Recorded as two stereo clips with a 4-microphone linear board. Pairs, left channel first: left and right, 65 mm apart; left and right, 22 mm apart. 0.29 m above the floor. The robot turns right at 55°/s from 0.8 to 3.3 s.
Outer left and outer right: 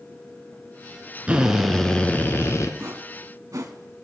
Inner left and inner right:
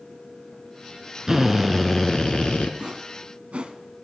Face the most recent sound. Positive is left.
turn(degrees=-60)  # may be behind; listen again after turning